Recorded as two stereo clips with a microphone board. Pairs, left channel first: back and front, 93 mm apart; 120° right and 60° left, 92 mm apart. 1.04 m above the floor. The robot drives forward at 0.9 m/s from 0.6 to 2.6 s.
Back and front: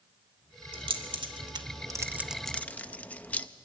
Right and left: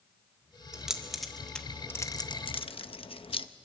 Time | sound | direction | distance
0.7 | keys jangling | 20° right | 1.6 m